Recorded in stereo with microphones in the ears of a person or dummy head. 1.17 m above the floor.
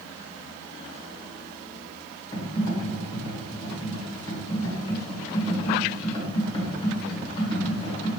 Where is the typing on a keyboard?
30° left (ahead or behind), 1.4 m.